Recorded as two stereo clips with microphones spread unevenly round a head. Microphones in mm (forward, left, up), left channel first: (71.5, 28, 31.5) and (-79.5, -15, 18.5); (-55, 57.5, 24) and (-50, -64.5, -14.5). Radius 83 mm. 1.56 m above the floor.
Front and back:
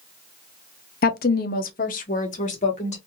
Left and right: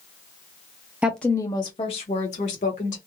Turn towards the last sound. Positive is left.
turn(degrees=65)